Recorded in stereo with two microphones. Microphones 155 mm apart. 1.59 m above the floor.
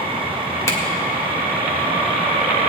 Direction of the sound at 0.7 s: 20° left (ahead or behind).